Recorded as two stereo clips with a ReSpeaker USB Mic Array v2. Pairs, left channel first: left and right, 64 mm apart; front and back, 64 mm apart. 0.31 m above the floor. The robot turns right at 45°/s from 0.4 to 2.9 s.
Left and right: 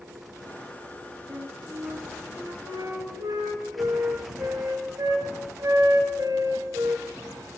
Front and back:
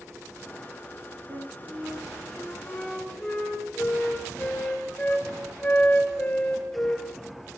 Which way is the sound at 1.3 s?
145° right.